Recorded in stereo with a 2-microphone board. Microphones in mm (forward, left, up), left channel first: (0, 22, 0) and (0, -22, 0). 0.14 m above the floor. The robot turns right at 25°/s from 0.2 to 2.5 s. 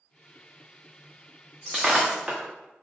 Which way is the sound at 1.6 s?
5° left (ahead or behind).